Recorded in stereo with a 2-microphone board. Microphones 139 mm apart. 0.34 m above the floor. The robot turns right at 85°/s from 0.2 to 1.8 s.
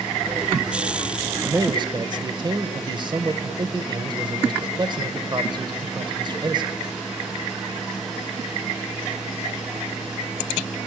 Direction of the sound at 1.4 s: 150° right.